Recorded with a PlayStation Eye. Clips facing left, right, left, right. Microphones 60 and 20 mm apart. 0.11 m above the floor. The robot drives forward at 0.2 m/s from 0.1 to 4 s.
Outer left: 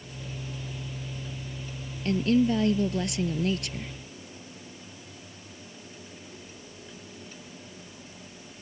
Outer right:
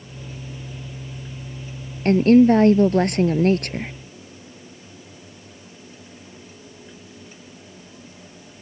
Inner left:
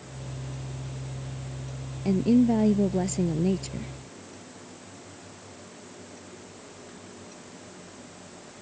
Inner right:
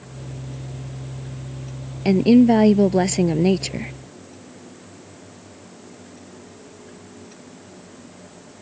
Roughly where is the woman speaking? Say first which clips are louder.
Outer right 10 dB, inner right 8 dB; right.